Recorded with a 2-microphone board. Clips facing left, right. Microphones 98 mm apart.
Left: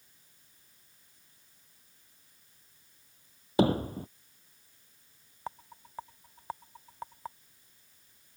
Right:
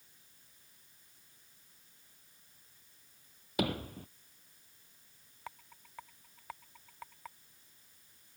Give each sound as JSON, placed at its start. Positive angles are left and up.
{"t": 3.6, "sound": "hammering", "side_deg": 35}
{"t": 5.5, "sound": "a rattle", "side_deg": 35}